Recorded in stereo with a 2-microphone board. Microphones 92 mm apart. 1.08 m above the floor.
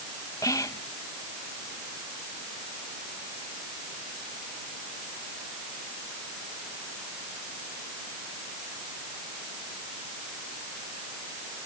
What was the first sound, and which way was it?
Whispering, 40° left (ahead or behind).